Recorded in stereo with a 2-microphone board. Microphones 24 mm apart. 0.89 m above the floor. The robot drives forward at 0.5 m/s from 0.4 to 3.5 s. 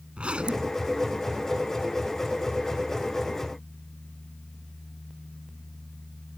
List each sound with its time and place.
0.2 s a zipper: 50° right (ahead or behind); by 0.8 s 55° right (ahead or behind)